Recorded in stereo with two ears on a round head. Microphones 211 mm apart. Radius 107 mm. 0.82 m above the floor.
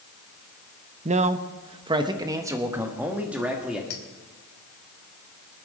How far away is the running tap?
I don't hear a running tap.